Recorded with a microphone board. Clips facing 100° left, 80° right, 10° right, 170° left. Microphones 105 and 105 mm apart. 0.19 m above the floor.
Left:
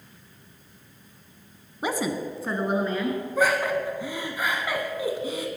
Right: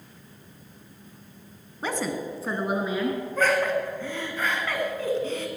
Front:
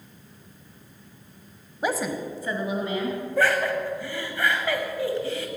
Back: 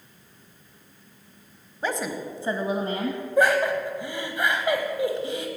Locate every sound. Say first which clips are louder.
1.8 s a woman speaking: left 2 dB, front 2 dB; 45° left, 1.0 m; by 3.2 s 155° right, 1.8 m
3.4 s laughter: even, back 3 dB; 150° left, 1.0 m